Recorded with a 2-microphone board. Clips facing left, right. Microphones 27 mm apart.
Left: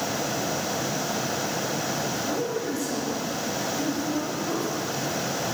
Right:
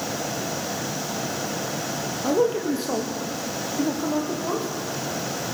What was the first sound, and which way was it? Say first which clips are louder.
A man speaking: right 6 dB; 55° right (ahead or behind).